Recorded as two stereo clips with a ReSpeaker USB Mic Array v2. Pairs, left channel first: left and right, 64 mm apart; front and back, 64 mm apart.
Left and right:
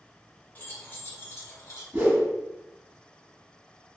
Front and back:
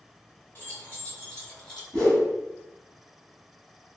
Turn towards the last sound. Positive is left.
turn(degrees=-75)